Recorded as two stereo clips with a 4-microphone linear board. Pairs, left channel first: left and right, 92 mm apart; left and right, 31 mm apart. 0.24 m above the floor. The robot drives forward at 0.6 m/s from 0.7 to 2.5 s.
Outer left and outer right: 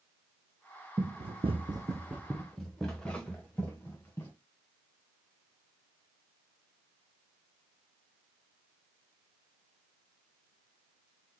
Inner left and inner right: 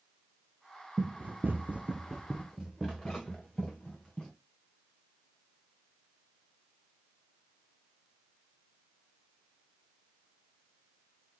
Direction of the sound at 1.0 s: 60° right (ahead or behind).